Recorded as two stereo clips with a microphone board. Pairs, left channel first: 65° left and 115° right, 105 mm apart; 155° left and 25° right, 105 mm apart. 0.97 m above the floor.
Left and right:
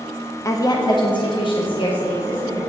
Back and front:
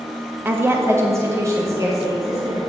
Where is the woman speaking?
35° left, 0.6 m.